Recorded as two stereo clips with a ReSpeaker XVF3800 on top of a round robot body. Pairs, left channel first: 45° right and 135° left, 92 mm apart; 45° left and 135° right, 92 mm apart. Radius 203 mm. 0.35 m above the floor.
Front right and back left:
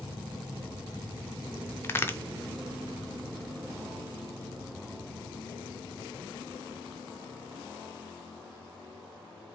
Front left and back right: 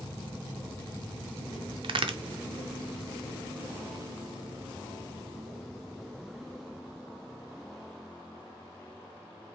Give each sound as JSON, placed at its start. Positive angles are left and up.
{"t": 1.8, "sound": "a crack", "azimuth_deg": -110, "distance_m": 0.7}